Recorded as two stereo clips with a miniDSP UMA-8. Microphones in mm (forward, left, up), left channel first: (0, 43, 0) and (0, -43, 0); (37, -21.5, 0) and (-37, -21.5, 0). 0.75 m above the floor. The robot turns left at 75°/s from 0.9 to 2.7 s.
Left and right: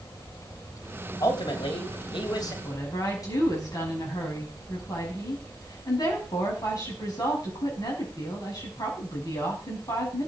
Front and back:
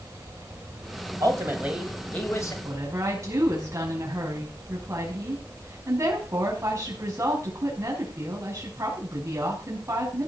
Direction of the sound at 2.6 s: 140° left.